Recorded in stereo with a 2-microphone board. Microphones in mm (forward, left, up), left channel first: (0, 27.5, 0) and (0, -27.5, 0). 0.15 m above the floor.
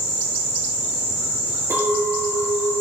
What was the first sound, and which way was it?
A clink, 50° right (ahead or behind).